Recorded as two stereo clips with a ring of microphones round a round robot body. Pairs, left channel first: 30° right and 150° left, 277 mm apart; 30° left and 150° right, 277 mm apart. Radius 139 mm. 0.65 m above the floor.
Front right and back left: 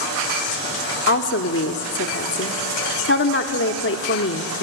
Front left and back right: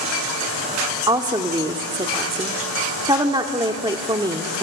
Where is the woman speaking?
75° right, 1.3 m.